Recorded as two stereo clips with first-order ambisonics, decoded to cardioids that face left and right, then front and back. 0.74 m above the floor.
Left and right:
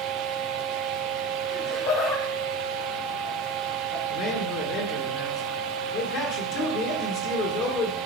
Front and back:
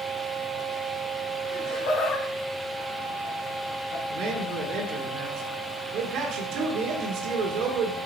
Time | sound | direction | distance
1.5 | laughter | 55° left | 4.5 m
4.1 | a man speaking | 135° left | 1.9 m